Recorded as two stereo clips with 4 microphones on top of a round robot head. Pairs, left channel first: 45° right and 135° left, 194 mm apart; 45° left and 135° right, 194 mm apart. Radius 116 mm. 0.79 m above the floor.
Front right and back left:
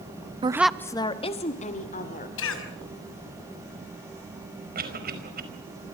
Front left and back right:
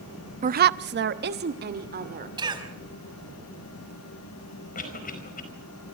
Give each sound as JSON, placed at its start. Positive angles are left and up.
{"t": 0.4, "sound": "a woman speaking", "azimuth_deg": -175, "distance_m": 0.6}
{"t": 2.4, "sound": "a cough", "azimuth_deg": -70, "distance_m": 5.0}
{"t": 4.8, "sound": "a cough", "azimuth_deg": 95, "distance_m": 5.0}